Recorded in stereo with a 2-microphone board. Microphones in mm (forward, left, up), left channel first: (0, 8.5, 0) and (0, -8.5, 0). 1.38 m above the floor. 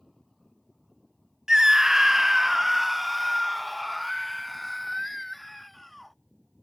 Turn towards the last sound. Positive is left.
turn(degrees=0)  # may be behind; listen again after turning